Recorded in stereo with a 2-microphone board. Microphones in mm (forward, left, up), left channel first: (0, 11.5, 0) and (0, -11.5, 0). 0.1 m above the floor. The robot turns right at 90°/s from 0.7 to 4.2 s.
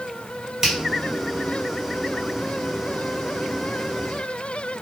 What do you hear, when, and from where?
0.6 s a finger snap: 20° right (ahead or behind), 1.4 m